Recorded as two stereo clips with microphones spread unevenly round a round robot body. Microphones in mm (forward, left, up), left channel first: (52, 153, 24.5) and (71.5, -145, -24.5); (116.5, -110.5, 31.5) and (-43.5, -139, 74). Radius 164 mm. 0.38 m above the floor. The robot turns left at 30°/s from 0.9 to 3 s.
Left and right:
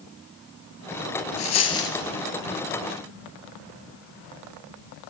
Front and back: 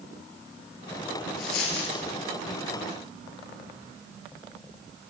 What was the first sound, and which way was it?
A dropped coin, 60° left.